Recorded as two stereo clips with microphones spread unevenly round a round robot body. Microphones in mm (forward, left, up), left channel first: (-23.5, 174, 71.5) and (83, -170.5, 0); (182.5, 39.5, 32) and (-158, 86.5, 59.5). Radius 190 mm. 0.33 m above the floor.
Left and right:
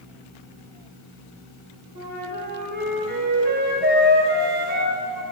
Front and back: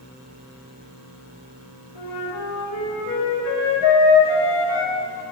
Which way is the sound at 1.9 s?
10° right.